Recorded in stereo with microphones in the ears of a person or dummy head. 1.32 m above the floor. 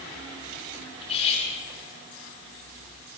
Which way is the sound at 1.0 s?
30° left (ahead or behind).